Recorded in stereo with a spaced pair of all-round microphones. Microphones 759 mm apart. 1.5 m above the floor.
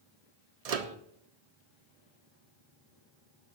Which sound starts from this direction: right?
A microwave, at 0.7 s.